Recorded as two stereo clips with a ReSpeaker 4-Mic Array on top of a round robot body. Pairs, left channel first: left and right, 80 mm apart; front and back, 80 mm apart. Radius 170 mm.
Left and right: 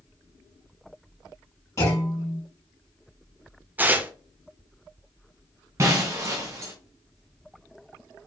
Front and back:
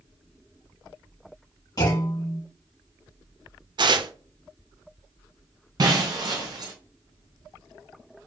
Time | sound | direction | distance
1.8 | a clunk | 40° left | 2.5 m
3.8 | tearing paper | 160° right | 0.6 m
5.8 | breaking glass | 145° right | 0.6 m